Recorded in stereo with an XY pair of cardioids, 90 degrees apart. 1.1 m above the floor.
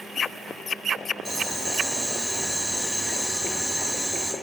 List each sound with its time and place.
1.2 s boiling: 5° right, 1.6 m